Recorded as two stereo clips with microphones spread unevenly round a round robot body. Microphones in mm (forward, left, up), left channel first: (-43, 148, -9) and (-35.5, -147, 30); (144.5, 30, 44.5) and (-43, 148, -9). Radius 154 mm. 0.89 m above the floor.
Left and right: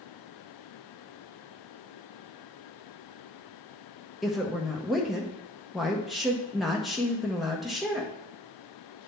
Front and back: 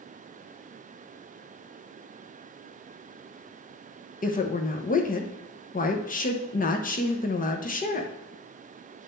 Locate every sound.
4.2 s a woman speaking: 15° left, 1.0 m